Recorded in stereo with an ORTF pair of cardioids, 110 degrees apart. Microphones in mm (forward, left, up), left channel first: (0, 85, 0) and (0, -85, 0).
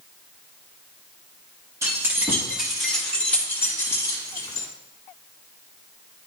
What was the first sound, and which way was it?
Keys jangling, 20° right.